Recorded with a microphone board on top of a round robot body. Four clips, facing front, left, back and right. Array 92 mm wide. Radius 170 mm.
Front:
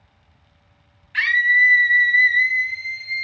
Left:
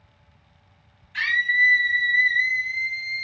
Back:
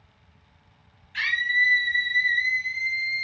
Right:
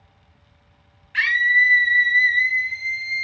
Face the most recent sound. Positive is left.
turn(degrees=-45)